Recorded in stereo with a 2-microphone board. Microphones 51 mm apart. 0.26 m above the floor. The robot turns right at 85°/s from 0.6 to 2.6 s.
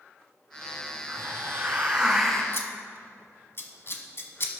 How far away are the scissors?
About 1.1 m.